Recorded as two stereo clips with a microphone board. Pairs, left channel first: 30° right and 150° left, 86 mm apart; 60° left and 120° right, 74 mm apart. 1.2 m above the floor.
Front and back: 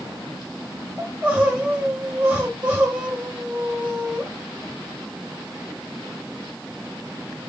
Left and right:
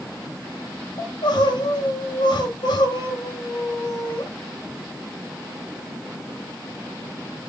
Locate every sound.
1.0 s crying: 75° left, 2 m